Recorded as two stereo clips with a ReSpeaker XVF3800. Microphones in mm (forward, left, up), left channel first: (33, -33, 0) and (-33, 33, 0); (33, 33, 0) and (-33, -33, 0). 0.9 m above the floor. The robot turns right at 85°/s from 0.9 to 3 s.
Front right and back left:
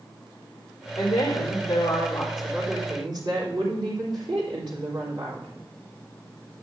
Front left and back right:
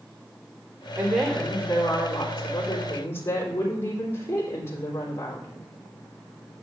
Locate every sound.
1.0 s a woman speaking: 70° right, 3.5 m; by 5.5 s 105° left, 3.5 m